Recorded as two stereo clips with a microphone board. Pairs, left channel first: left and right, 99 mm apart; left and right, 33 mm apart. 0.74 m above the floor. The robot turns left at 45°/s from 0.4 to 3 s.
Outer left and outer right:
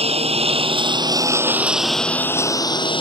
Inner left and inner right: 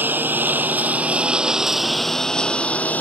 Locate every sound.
0.0 s a lawn mower: 80° right; by 3.0 s 55° left (ahead or behind)